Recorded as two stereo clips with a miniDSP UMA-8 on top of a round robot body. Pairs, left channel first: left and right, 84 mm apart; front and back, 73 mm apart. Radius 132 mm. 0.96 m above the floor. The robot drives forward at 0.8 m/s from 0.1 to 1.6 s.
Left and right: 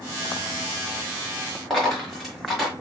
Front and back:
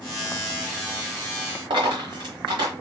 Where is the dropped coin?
Straight behind, 1.2 m.